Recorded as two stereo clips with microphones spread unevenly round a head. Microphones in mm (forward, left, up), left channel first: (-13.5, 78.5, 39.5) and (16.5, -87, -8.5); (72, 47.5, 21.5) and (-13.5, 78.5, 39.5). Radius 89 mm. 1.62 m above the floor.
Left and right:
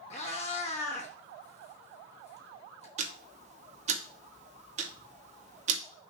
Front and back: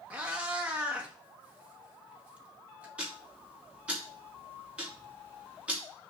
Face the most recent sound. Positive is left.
turn(degrees=-130)